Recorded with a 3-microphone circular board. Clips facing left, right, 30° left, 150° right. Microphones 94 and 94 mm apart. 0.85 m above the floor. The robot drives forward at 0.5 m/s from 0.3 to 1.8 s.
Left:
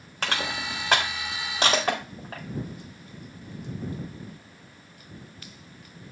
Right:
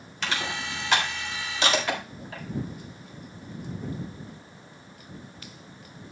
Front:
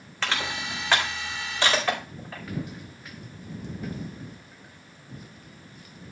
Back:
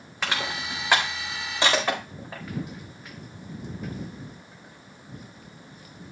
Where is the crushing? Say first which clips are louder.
Left 1 dB, even; 130° left, 3.5 m; by 2.4 s 140° left, 4 m.